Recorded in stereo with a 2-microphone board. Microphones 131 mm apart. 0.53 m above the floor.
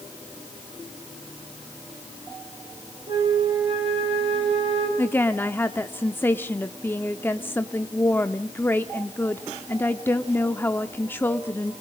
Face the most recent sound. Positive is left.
turn(degrees=15)  # may be behind; listen again after turning